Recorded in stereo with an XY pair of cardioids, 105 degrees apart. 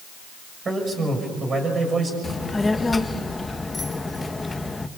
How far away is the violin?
No violin in this recording.